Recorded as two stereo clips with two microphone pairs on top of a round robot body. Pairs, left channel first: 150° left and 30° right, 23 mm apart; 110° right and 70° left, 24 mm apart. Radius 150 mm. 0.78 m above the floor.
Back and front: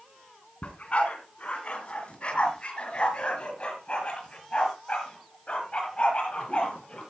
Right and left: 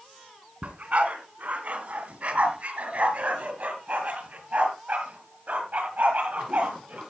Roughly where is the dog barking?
Left.